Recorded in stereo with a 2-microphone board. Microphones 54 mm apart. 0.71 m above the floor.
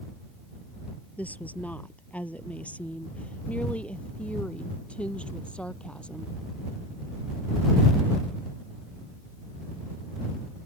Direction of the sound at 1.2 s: 30° left (ahead or behind).